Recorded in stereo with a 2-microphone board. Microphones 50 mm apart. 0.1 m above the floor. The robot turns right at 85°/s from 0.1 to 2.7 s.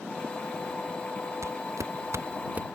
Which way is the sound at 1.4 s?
70° right (ahead or behind).